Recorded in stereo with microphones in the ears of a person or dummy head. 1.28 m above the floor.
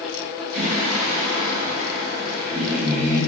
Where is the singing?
45° right (ahead or behind), 1.2 m.